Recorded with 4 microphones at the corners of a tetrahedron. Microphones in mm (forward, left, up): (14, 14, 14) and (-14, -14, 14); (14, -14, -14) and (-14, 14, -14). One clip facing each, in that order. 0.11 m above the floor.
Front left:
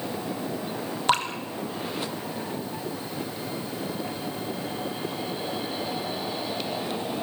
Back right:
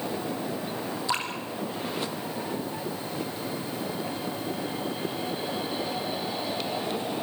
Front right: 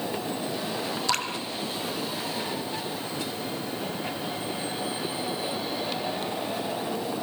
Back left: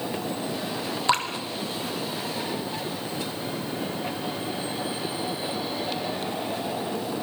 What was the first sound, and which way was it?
Dripping, 75° left.